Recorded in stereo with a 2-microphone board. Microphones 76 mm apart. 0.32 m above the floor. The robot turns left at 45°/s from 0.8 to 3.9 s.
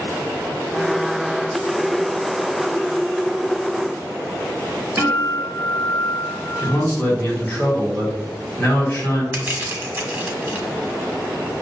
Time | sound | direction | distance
5.0 | a guitar | 30° right (ahead or behind) | 0.9 m
6.6 | a man speaking | 15° left (ahead or behind) | 1.3 m
9.3 | crushing | 25° right (ahead or behind) | 0.9 m